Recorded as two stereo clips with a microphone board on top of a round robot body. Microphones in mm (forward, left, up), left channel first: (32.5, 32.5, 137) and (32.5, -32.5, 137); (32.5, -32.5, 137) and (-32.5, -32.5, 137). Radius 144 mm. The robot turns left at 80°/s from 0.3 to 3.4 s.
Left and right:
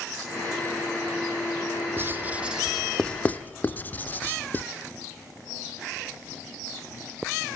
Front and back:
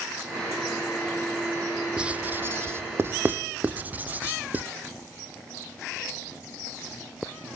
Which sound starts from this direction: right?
Writing, at 2.0 s.